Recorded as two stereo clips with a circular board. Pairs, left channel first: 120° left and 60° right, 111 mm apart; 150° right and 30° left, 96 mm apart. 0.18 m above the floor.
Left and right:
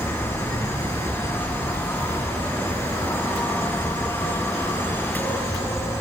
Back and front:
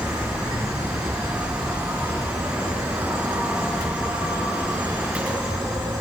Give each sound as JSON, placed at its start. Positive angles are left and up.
{"t": 0.0, "sound": "an insect", "azimuth_deg": 70, "distance_m": 2.5}